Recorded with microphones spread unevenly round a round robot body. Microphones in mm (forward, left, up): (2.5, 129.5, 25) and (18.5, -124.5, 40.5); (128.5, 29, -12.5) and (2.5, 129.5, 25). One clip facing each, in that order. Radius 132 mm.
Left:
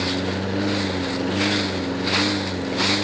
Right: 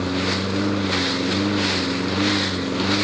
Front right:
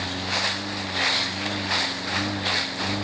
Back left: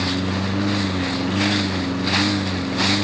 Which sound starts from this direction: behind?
A lawn mower, at 0.0 s.